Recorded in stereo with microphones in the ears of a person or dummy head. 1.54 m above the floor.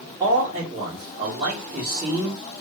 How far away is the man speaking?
About 1.3 m.